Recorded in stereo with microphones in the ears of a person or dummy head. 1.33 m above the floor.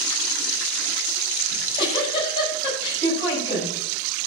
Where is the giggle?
30° left (ahead or behind), 7.5 m.